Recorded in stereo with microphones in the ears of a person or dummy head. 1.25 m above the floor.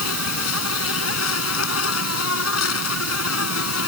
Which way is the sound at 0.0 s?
85° left.